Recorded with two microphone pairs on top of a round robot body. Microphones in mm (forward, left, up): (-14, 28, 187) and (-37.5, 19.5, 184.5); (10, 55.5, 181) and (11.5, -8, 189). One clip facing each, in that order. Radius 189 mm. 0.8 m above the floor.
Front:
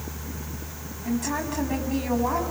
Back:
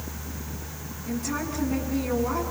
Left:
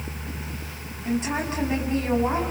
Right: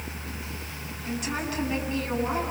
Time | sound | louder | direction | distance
1.1 | a woman speaking | front 3 dB, left 5 dB | 30° left | 8 m